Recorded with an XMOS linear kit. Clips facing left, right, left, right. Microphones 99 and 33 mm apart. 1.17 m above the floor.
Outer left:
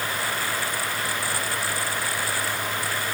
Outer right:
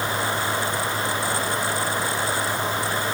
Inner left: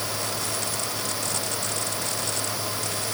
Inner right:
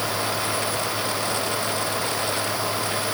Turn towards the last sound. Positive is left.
No sound to turn to.